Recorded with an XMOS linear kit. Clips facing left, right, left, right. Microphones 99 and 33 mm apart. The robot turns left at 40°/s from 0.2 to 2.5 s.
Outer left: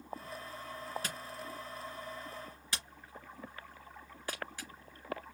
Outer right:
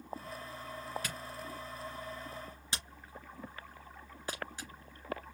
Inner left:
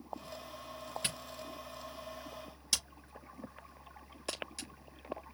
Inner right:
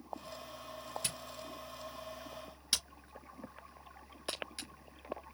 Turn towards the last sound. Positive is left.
turn(degrees=-20)  # may be behind; listen again after turning